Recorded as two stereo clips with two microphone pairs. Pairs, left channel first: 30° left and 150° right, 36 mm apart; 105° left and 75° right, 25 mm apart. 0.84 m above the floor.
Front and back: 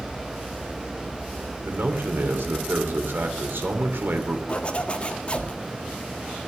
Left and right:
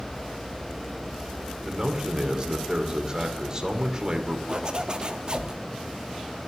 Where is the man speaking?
140° right, 2.5 m.